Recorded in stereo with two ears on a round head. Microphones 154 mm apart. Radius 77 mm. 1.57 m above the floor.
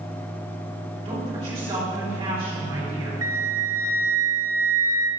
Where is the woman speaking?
30° right (ahead or behind), 3 m.